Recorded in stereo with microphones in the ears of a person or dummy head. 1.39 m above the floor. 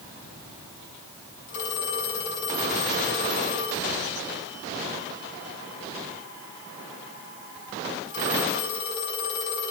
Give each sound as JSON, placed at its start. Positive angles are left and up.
{"t": 1.5, "sound": "a phone ringing", "side_deg": 65, "distance_m": 6.5}